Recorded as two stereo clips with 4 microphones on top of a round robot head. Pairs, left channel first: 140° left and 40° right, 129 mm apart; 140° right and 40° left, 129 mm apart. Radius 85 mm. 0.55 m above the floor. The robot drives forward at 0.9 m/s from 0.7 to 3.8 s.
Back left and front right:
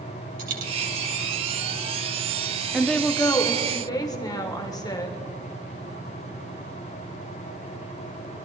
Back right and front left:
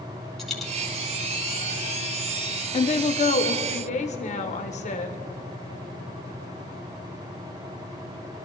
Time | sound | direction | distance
0.4 | a dropped coin | 50° right | 2.5 m
2.7 | a woman speaking | 125° right | 0.8 m